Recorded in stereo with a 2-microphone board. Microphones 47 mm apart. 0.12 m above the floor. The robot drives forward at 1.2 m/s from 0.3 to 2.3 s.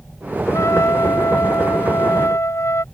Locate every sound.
0.5 s a trumpet: 75° left (ahead or behind); by 2.8 s 65° left (ahead or behind)